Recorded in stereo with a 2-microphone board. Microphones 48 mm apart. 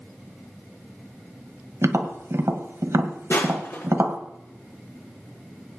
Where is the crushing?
65° left (ahead or behind), 5.5 m.